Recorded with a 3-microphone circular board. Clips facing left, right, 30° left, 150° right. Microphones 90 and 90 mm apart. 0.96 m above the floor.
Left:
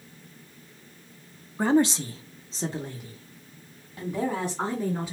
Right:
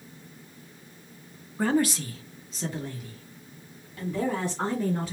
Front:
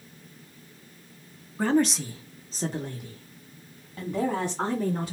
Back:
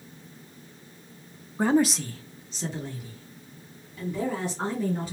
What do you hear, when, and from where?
1.6 s a woman speaking: 155° left, 0.7 m; by 5.1 s 15° left, 2.5 m